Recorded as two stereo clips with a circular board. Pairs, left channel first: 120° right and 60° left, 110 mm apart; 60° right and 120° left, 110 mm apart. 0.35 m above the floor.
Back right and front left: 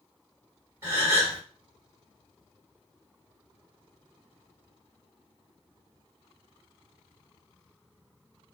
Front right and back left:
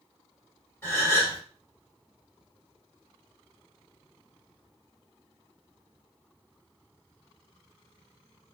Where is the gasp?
Straight ahead, 1.8 m.